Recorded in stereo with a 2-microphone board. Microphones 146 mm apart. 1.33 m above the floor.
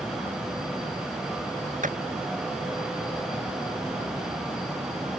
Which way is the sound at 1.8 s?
65° right (ahead or behind).